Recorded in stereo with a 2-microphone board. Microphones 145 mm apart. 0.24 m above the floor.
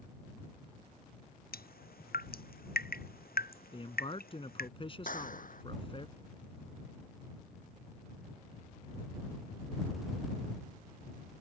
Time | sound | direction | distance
1.5 | dripping | 80° left | ?
3.7 | a man speaking | 35° left (ahead or behind) | ?
5.1 | a clap | 65° left (ahead or behind) | ?